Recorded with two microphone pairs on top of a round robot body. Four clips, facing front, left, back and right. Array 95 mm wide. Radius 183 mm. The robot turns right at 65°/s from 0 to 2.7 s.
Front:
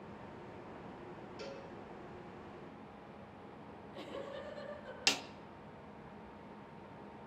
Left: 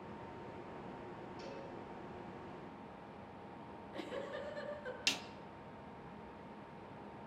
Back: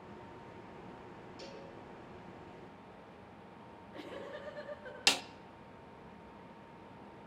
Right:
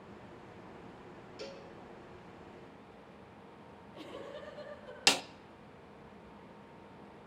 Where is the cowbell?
50° right, 5.5 m; by 1.7 s 35° right, 5.5 m.